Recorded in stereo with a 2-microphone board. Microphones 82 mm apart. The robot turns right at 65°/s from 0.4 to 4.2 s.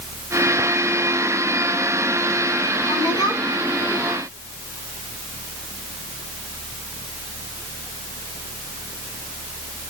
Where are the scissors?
No scissors in this recording.